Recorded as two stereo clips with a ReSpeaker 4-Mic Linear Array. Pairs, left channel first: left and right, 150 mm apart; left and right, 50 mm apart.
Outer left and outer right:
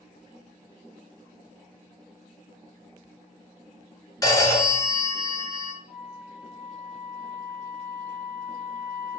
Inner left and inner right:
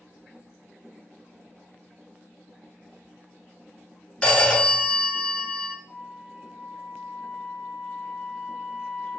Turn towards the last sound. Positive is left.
turn(degrees=-15)  # may be behind; listen again after turning